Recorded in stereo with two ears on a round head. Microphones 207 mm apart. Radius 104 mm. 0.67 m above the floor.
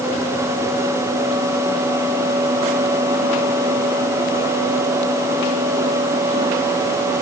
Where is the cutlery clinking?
I don't hear cutlery clinking.